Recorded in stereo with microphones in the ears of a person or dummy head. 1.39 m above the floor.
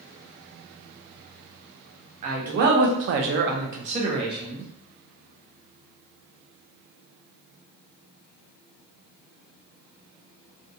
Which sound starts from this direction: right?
A man speaking, at 2.2 s.